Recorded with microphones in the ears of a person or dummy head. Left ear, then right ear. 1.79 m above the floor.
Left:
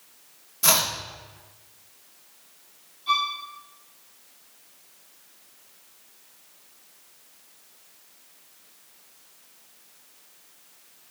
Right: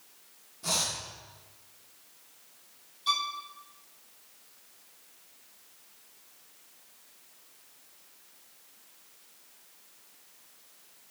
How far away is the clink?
I don't hear a clink.